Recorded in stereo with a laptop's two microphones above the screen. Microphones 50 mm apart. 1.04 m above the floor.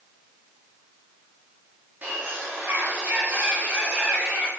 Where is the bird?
35° right (ahead or behind), 2.5 m.